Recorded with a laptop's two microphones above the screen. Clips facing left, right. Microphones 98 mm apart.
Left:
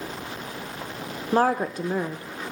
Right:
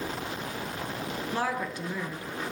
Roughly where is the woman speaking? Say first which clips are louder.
Left 11 dB; left.